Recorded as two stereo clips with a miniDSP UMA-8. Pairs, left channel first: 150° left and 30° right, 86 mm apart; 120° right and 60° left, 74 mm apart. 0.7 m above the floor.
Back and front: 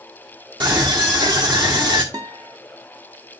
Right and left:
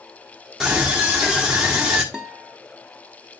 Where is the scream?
20° right, 1.5 m.